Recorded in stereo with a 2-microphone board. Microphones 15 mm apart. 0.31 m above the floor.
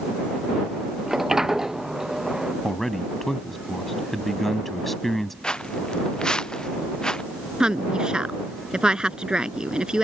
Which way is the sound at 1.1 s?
40° right (ahead or behind).